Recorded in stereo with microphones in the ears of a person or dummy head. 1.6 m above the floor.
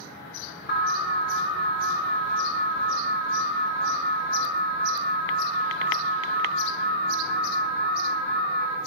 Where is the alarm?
65° left (ahead or behind), 1.5 m.